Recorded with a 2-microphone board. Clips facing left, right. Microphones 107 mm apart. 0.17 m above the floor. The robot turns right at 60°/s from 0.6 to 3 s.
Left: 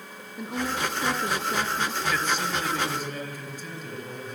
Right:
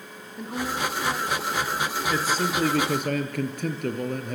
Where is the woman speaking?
5° left, 2 m; by 2.0 s 85° left, 2 m.